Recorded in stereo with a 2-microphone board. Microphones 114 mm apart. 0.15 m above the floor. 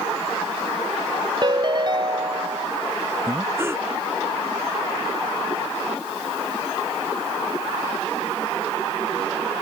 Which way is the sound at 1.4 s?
40° right (ahead or behind).